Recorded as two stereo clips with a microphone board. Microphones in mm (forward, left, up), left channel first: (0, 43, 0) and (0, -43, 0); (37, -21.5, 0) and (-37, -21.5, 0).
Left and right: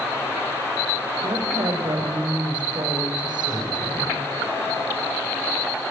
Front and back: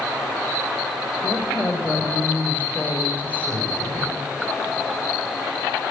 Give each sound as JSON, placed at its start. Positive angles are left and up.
{"t": 1.2, "sound": "a woman speaking", "azimuth_deg": -65, "distance_m": 7.0}